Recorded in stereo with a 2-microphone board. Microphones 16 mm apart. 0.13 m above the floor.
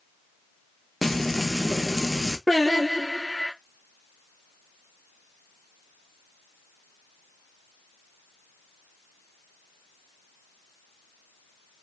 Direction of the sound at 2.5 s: 15° left (ahead or behind).